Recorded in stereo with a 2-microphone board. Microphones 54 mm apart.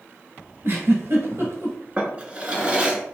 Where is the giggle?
55° right (ahead or behind), 1.2 m.